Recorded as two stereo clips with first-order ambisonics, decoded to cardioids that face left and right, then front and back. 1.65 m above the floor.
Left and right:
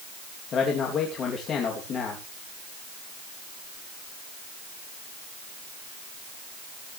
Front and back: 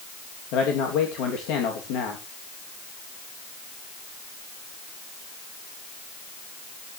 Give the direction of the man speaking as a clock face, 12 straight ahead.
11 o'clock.